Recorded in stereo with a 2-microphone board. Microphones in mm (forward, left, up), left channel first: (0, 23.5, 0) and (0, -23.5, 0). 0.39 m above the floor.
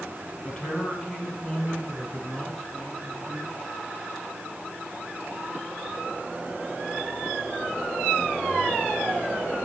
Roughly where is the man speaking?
Centre.